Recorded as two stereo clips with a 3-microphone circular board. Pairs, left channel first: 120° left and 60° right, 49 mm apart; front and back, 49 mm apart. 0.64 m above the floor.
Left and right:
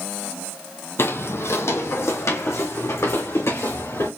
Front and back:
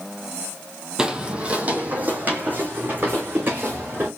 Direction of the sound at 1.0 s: 110° left.